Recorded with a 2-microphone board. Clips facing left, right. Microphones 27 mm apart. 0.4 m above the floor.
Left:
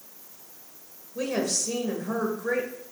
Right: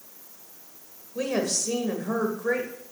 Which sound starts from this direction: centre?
A woman speaking, at 1.1 s.